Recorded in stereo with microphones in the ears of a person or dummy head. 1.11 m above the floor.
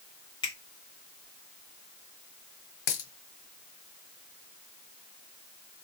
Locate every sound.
0.4 s a finger snap: 20° left (ahead or behind), 1.1 m
2.9 s a dropped coin: 55° left (ahead or behind), 1.5 m